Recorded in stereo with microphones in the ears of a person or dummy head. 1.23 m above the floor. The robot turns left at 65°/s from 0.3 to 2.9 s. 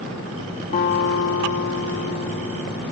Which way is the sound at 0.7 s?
145° left.